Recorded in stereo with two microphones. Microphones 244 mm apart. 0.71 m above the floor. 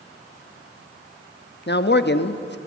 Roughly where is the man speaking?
Left.